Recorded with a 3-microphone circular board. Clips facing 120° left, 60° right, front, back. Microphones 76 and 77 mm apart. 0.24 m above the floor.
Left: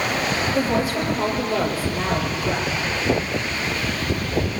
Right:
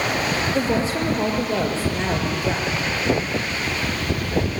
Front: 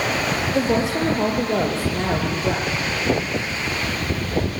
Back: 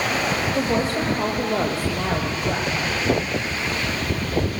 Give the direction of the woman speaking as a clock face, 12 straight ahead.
12 o'clock.